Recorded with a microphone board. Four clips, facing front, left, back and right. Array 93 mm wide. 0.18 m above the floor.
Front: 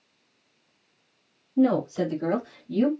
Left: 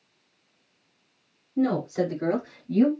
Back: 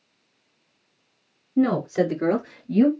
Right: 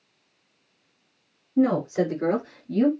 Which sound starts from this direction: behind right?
A woman speaking, at 1.6 s.